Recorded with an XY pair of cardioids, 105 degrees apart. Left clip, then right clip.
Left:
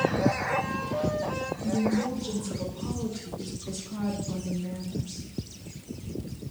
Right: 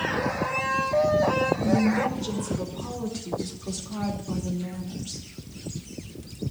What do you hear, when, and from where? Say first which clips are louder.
1.6 s a woman speaking: right 5 dB; 40° right, 5 m; by 5.3 s 65° right, 4 m